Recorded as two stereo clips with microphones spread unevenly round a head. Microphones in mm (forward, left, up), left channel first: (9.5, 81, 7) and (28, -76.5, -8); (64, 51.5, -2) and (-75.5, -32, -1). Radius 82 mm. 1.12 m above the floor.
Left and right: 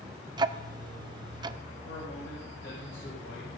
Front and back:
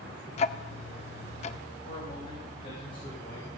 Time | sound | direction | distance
0.4 | ticking | 20° right | 0.5 m
1.8 | a man speaking | 75° left | 5.5 m